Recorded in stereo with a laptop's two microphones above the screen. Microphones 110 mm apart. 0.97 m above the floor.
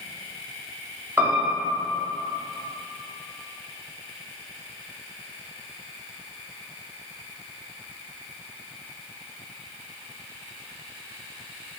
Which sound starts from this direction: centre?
A piano, at 1.2 s.